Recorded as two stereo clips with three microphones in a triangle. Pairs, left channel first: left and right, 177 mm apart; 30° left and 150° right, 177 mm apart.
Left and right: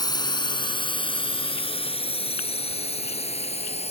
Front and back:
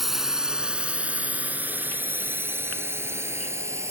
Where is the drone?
125° left; by 3.9 s 135° left.